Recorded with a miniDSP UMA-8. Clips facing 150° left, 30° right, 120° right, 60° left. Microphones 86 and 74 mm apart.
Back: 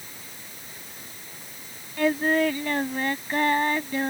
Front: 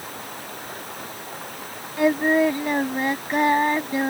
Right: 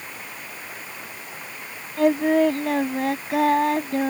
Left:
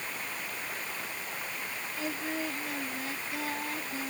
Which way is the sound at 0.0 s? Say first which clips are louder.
Front 11 dB, right 1 dB; 35° right.